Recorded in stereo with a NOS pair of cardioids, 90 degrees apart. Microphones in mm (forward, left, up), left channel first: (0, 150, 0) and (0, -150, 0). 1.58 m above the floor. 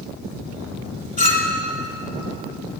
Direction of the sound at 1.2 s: 30° left.